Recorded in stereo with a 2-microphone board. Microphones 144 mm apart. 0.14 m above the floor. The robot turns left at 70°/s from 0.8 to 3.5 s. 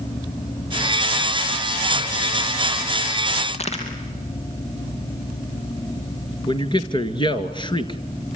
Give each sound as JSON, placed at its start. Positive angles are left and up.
{"t": 3.5, "sound": "a crack", "side_deg": 45, "distance_m": 5.0}
{"t": 6.5, "sound": "a man speaking", "side_deg": 35, "distance_m": 2.0}